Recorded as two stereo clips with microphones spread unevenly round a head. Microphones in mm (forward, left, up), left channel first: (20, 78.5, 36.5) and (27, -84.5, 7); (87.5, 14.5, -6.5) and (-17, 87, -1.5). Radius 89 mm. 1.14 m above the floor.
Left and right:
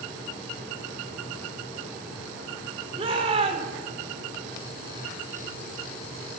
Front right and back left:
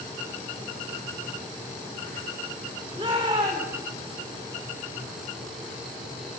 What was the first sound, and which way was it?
A shout, 150° right.